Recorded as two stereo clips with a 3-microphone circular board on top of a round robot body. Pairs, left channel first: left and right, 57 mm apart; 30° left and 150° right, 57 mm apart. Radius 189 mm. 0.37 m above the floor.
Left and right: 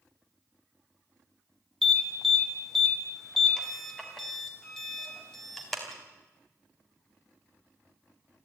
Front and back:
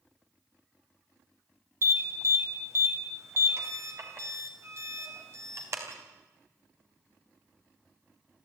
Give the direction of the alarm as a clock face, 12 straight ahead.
6 o'clock.